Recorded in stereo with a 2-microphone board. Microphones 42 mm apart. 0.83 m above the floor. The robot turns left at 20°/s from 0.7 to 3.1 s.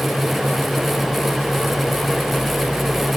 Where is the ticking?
No ticking in this recording.